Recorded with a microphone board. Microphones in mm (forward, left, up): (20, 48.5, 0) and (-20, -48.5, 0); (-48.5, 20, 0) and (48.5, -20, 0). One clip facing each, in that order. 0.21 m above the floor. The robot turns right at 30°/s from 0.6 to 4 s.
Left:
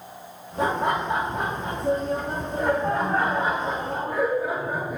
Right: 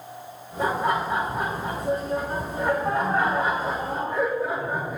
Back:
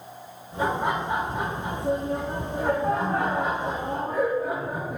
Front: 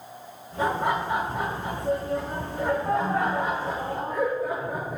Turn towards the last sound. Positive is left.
turn(degrees=155)